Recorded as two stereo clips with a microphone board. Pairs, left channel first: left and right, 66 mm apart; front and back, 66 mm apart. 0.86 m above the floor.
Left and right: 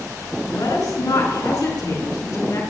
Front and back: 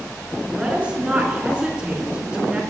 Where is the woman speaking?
105° left, 4 m.